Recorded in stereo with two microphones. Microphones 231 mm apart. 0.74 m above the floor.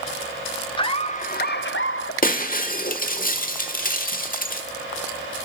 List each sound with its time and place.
0.8 s laughter: 20° left (ahead or behind), 1.4 m; by 2.1 s 70° left (ahead or behind), 1.2 m
2.2 s breaking glass: 35° left (ahead or behind), 1.3 m